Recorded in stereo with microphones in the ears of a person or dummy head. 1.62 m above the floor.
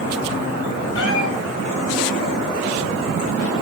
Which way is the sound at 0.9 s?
80° left.